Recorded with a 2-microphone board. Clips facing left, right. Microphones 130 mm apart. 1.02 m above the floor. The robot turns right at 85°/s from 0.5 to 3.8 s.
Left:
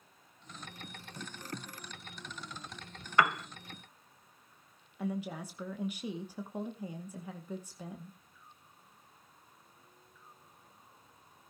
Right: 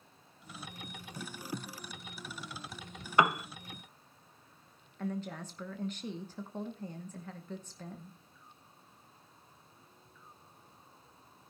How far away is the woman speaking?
About 1.0 m.